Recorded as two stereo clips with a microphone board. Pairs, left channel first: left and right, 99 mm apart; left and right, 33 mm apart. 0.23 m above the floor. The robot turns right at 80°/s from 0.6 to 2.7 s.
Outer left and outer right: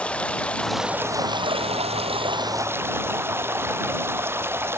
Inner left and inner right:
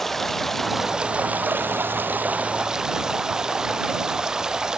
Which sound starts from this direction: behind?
Running water, at 0.0 s.